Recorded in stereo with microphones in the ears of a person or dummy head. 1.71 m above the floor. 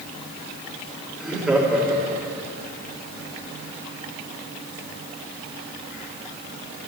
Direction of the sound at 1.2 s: 5° right (ahead or behind).